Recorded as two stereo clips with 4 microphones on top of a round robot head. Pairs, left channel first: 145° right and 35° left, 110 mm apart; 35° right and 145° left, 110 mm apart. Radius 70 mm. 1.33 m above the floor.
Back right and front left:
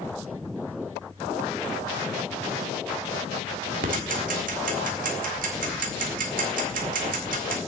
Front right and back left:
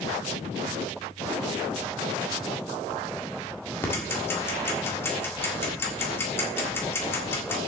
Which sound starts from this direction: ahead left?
Ticking, at 3.8 s.